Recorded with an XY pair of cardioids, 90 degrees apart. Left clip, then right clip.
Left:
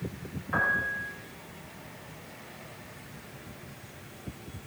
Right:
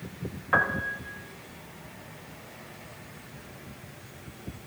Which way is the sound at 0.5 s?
65° right.